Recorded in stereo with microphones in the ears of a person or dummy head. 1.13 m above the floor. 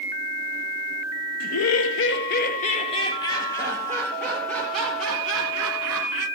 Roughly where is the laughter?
Left.